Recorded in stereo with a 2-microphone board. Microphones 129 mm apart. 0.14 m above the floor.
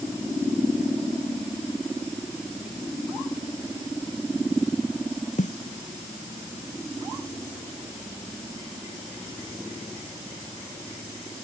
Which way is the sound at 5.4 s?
75° left (ahead or behind).